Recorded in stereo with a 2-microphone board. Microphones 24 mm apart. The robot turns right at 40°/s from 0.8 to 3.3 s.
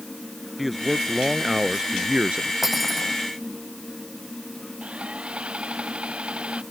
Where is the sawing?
50° right (ahead or behind).